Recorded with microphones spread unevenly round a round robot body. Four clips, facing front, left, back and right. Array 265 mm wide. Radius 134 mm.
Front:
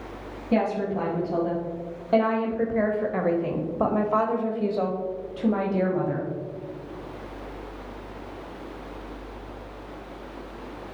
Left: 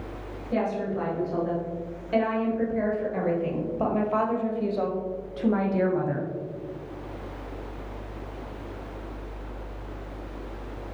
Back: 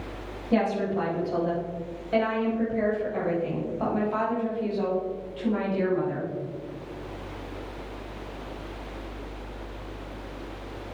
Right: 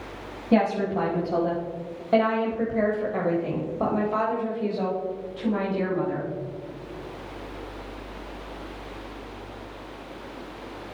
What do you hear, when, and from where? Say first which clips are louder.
0.5 s a woman speaking: right 5 dB, even; 75° right, 1.9 m; by 6.3 s 45° left, 2 m